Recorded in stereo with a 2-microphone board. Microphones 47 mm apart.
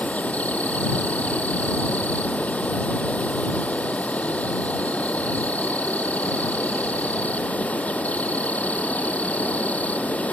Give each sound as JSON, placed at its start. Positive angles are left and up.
{"t": 0.0, "sound": "an insect", "side_deg": 30}